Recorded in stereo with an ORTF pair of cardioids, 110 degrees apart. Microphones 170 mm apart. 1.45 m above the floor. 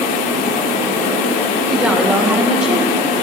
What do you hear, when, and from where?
0.0 s a fan: 55° left, 1.7 m
1.7 s a woman speaking: 5° right, 1.0 m